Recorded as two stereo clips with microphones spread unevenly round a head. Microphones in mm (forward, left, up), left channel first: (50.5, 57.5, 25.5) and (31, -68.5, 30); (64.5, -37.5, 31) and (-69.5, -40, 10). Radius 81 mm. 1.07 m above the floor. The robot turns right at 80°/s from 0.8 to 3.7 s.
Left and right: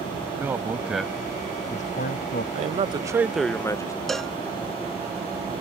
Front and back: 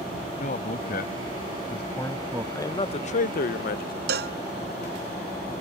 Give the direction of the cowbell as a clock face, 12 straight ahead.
6 o'clock.